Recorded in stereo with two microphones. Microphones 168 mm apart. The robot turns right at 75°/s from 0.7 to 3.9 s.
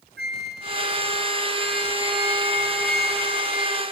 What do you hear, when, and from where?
0.2 s a flute: 75° right, 0.6 m; by 3.8 s 155° left, 0.6 m